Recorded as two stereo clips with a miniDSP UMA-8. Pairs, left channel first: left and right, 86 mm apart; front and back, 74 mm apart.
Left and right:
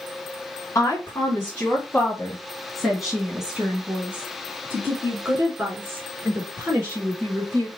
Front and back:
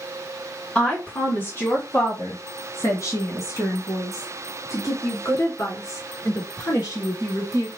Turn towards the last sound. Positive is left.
turn(degrees=-40)